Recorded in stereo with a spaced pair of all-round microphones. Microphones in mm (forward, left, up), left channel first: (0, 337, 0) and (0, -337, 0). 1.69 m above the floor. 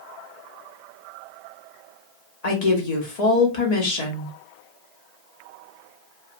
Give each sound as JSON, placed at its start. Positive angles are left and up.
{"t": 2.4, "sound": "a woman speaking", "side_deg": 70, "distance_m": 1.1}